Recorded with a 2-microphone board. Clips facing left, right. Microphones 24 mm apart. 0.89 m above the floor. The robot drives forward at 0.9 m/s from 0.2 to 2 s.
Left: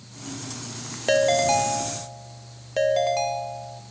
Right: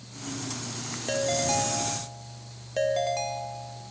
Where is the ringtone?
40° left (ahead or behind), 0.6 m; by 3.8 s 20° left (ahead or behind), 1.2 m.